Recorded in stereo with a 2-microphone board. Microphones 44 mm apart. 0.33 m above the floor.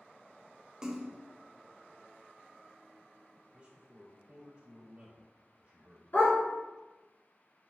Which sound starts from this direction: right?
A man speaking, at 3.5 s.